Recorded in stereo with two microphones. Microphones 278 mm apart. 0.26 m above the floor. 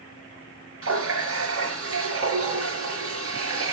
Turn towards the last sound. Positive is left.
turn(degrees=-55)  # may be behind; listen again after turning